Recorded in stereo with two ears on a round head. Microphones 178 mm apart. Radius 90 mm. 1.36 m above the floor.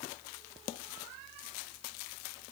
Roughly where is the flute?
I don't hear a flute.